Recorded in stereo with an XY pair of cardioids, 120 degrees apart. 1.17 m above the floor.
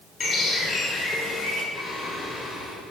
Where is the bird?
40° left, 5.5 m.